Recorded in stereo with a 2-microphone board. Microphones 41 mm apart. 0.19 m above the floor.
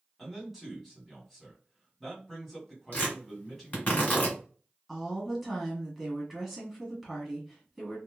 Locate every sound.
0.2 s a man speaking: centre (ahead or behind), 1.6 m
2.9 s tearing paper: 35° left (ahead or behind), 2 m
4.9 s a woman speaking: centre (ahead or behind), 1.7 m